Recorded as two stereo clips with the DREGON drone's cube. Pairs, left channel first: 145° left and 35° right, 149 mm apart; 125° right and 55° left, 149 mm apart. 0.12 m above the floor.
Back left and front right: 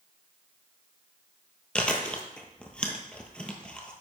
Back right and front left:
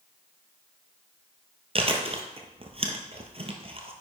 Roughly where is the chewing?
Ahead left.